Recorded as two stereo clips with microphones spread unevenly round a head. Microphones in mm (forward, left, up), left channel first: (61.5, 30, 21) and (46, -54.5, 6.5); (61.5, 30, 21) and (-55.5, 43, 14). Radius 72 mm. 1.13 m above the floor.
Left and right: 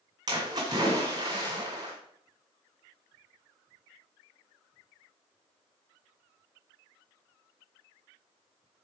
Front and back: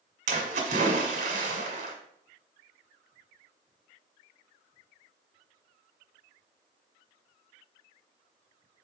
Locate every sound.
0.3 s a splash: 160° right, 1.5 m